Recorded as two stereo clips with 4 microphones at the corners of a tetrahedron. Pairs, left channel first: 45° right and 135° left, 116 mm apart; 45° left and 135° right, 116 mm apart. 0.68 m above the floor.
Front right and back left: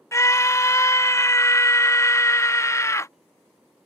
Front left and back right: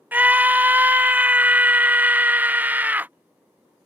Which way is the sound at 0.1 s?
75° right.